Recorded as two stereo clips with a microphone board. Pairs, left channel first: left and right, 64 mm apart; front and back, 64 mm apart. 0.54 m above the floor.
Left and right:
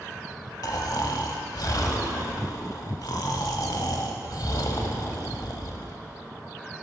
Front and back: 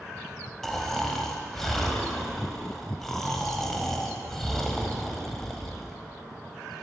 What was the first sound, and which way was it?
Snoring, 85° left.